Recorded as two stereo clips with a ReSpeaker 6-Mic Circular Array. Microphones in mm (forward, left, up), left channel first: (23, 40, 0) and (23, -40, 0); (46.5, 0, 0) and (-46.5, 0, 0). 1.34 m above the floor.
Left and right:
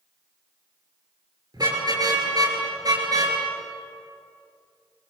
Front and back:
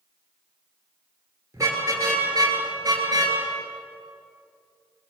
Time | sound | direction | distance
1.5 | a car horn | 125° right | 9 m